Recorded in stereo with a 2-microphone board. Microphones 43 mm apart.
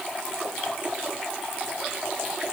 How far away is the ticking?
No ticking in this recording.